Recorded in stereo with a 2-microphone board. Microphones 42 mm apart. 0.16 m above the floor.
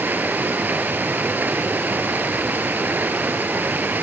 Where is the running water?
45° right (ahead or behind), 3 m.